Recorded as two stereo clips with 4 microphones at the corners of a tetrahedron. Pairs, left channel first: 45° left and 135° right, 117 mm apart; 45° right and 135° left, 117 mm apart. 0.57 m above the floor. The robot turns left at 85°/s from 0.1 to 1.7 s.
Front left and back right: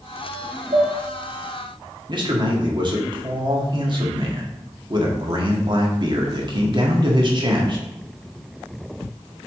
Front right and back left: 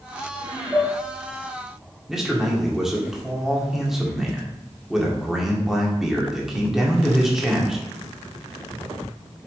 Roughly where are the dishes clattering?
Behind right.